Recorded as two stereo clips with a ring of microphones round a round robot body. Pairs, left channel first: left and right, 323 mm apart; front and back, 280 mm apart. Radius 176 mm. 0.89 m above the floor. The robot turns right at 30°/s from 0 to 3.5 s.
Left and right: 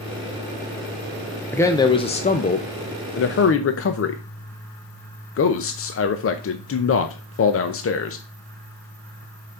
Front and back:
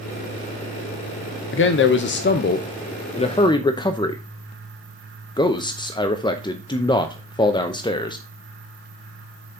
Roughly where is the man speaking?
Ahead.